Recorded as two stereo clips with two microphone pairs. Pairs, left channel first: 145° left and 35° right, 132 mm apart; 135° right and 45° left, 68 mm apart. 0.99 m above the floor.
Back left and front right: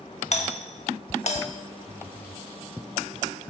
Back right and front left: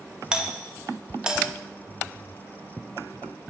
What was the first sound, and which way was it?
A doorbell, 125° left.